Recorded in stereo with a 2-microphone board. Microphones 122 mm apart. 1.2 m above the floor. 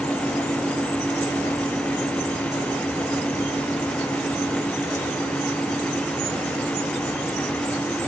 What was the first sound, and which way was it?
Only background noise.